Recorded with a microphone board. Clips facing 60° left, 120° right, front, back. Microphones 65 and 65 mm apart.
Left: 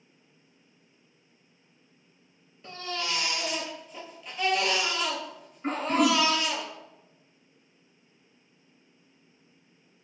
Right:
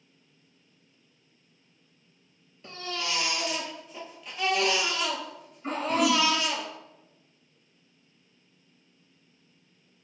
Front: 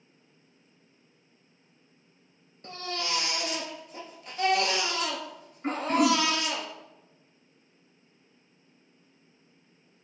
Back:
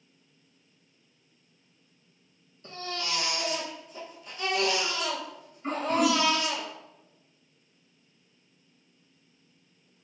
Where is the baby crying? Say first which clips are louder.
Even, front 1 dB; 30° right, 1.0 m.